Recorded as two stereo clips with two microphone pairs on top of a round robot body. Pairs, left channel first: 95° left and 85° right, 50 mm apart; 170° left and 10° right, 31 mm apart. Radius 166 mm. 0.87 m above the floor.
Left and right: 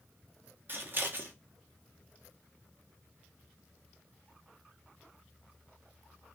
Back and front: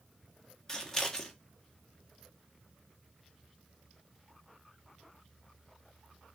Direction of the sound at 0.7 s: 115° right.